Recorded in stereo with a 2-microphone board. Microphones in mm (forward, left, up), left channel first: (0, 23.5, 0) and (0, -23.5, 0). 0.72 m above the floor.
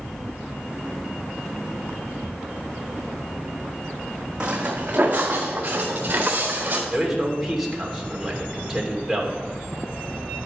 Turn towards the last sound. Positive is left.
turn(degrees=-5)  # may be behind; listen again after turning